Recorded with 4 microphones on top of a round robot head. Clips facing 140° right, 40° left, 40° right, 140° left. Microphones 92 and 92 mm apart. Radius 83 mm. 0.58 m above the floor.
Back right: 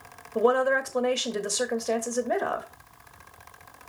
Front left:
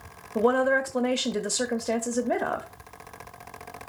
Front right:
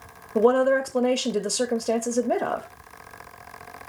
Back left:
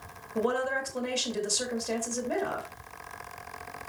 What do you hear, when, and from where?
0.3 s a woman speaking: 35° right, 1.1 m